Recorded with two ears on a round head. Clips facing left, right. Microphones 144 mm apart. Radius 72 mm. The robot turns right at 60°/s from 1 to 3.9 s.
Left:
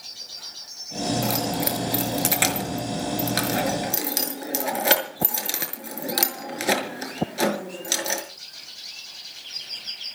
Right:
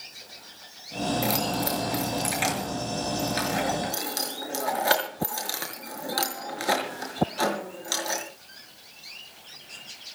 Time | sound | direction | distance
1.2 | keys jangling | 5° right (ahead or behind) | 5.5 m